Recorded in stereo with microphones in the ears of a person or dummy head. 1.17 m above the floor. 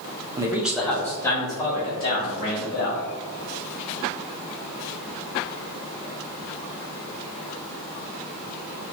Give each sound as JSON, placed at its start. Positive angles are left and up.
{"t": 0.4, "sound": "a man speaking", "side_deg": -20, "distance_m": 0.6}